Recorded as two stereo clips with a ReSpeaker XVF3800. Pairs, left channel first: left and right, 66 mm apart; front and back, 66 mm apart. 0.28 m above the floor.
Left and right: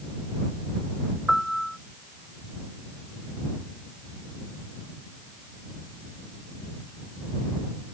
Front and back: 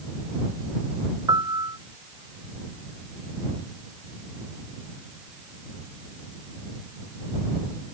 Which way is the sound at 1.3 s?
Straight behind.